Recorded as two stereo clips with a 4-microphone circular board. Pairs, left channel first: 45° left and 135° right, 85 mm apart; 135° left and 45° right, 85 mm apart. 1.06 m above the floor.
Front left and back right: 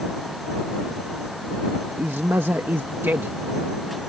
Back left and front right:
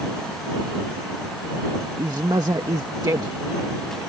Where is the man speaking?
75° right.